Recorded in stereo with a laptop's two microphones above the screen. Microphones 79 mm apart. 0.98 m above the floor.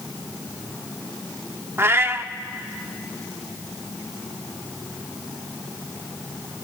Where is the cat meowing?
30° right (ahead or behind), 0.7 m.